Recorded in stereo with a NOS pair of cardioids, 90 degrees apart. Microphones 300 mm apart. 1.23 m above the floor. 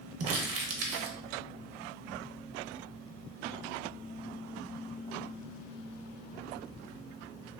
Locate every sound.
0.2 s crumpling: 55° right, 0.7 m